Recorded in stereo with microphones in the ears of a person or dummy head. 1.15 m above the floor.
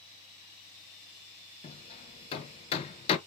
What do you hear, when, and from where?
1.6 s hammering: 35° left (ahead or behind), 0.5 m